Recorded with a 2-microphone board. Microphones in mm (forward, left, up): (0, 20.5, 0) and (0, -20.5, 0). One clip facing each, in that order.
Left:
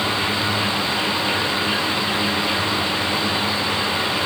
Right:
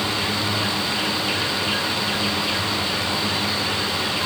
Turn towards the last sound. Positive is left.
No sound to turn to.